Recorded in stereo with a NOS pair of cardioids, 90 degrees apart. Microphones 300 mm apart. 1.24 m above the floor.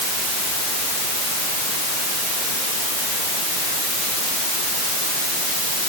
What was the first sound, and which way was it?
Only background noise.